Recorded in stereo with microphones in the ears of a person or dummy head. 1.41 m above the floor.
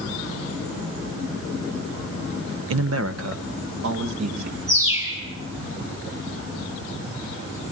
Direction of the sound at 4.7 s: 20° right (ahead or behind).